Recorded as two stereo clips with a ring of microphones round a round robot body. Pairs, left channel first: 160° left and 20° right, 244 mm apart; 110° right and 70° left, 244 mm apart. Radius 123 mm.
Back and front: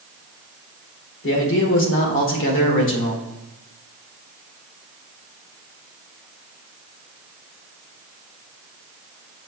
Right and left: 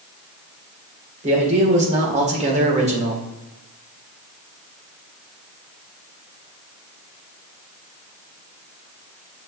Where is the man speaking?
125° left, 1.8 m.